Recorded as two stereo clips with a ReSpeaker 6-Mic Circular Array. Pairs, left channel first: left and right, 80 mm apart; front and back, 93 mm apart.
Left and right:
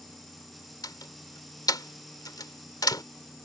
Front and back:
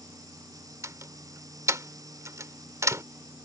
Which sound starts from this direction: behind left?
A door slam, at 0.8 s.